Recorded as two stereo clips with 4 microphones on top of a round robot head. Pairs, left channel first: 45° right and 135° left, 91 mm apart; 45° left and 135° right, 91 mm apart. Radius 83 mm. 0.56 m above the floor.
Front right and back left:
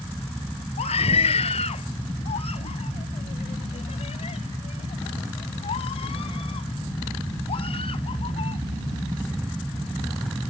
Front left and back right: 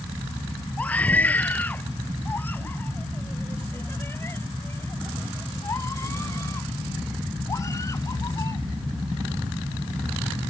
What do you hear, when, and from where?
0.8 s a scream: 35° right; by 8.6 s 15° right